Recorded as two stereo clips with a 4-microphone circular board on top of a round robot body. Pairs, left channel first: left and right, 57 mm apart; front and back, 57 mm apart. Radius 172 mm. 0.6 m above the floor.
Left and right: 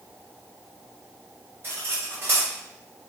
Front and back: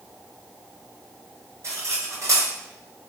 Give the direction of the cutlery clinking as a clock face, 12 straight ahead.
5 o'clock.